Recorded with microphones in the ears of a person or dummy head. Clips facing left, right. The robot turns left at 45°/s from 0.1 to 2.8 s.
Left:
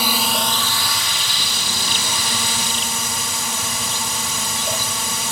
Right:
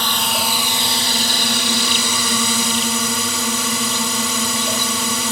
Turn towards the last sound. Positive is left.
turn(degrees=-115)